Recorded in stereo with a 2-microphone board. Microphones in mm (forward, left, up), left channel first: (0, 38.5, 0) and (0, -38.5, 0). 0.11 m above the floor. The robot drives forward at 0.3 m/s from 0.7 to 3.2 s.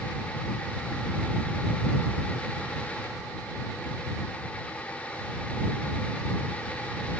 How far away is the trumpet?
I don't hear a trumpet.